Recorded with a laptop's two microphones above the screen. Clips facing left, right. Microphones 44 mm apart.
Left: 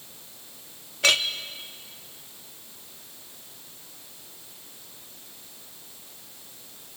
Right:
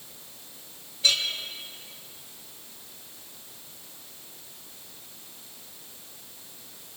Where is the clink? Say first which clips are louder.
Left 4 dB; 75° left (ahead or behind), 0.9 m.